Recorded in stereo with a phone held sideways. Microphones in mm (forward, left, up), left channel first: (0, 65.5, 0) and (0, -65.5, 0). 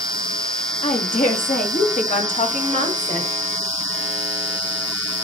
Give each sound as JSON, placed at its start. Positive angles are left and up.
{"t": 0.8, "sound": "a woman speaking", "side_deg": 75, "distance_m": 3.5}